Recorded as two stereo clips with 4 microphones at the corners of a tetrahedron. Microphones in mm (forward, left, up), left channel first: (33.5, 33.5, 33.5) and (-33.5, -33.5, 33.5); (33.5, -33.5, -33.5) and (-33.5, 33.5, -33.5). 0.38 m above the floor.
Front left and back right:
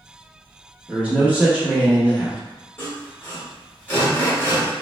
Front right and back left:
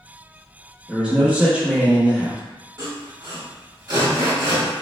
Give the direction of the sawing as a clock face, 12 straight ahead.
8 o'clock.